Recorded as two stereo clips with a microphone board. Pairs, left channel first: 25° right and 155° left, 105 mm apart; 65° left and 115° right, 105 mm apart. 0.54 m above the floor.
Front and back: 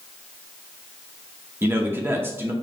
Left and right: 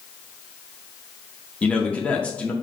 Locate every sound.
1.6 s a man speaking: 130° left, 0.7 m